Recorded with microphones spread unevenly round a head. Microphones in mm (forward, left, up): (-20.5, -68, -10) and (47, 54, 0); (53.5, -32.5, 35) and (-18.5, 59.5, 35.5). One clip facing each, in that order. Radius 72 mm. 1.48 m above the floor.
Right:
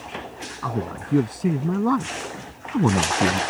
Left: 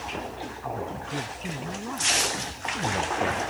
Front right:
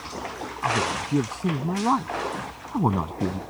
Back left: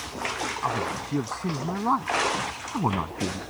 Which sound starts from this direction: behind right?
A man speaking, at 0.6 s.